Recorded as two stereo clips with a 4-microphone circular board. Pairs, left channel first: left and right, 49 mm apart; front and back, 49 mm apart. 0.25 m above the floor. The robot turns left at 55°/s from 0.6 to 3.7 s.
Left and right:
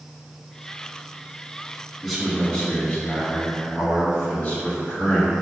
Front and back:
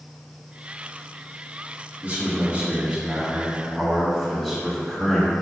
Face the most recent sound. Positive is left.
turn(degrees=80)